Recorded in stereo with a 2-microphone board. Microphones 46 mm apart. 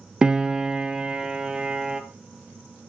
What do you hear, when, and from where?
0.2 s a piano: 20° right (ahead or behind), 0.8 m